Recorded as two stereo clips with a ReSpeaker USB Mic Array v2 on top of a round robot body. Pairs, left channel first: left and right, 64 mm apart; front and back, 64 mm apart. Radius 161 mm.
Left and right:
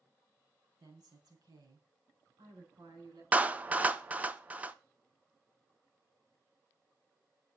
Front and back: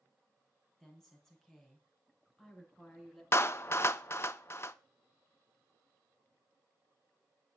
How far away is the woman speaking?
About 4 m.